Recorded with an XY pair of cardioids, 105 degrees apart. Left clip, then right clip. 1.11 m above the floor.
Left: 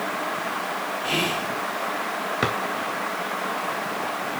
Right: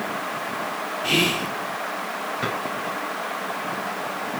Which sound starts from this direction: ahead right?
Whispering, at 1.0 s.